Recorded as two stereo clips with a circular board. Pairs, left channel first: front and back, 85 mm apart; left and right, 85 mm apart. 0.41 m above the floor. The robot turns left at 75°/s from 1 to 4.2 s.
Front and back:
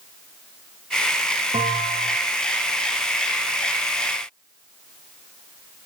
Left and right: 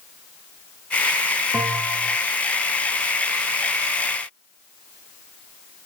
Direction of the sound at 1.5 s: 175° right.